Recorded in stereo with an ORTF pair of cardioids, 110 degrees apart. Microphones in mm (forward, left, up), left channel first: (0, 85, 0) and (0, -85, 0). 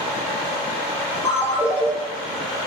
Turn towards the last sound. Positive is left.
turn(degrees=15)